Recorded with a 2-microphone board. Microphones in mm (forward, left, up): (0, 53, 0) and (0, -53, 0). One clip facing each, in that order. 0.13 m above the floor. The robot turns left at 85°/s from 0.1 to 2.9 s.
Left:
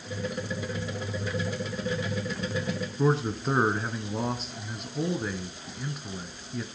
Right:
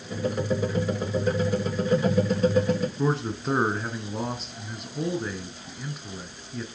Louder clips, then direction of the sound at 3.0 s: Left 1 dB; centre (ahead or behind).